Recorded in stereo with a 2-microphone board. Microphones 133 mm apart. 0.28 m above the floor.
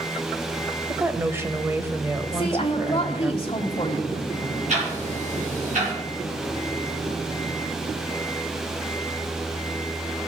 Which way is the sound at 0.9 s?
20° right (ahead or behind).